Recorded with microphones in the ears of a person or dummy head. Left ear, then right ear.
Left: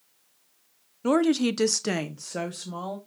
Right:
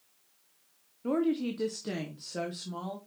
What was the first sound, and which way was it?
A woman speaking, 60° left (ahead or behind).